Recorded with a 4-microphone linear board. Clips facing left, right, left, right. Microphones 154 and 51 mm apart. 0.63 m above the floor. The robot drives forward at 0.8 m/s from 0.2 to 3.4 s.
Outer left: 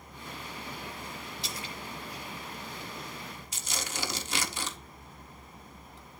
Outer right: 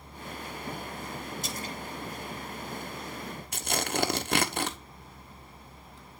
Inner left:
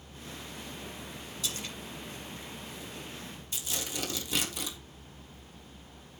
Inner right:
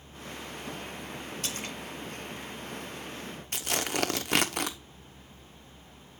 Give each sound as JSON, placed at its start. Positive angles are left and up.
{"t": 1.4, "sound": "a splash", "side_deg": -45, "distance_m": 2.0}
{"t": 3.5, "sound": "tearing paper", "side_deg": -55, "distance_m": 1.2}